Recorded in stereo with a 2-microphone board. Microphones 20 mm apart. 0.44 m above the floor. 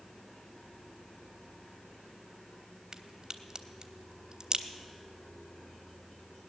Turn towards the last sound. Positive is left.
turn(degrees=-35)  # may be behind; listen again after turning